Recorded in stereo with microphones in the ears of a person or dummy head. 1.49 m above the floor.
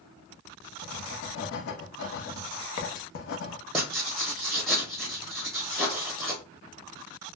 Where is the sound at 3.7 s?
Centre (ahead or behind), 0.9 m.